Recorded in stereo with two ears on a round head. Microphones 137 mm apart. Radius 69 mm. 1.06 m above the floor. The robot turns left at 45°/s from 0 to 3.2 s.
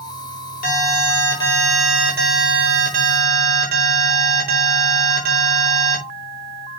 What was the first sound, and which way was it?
An alarm, 55° left.